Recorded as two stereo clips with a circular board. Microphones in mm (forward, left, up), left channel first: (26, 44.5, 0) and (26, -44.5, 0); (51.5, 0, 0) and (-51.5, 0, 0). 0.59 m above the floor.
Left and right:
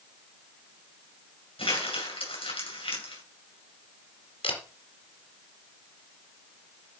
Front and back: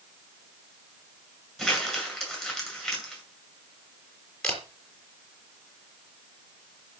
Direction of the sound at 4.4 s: 85° left.